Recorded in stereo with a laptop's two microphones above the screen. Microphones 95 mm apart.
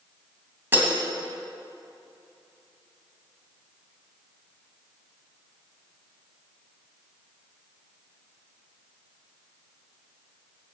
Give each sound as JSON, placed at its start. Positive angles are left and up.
{"t": 0.7, "sound": "breaking glass", "side_deg": -25, "distance_m": 2.5}